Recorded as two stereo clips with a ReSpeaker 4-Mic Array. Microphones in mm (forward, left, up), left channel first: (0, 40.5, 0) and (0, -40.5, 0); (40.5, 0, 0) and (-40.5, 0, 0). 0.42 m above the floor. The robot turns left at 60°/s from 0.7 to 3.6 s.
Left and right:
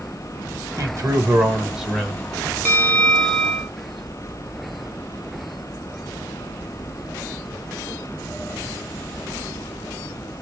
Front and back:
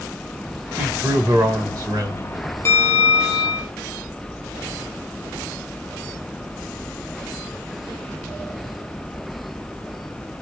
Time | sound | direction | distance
0.8 | a man speaking | 110° right | 1.5 m
2.6 | a bell | 35° left | 1.6 m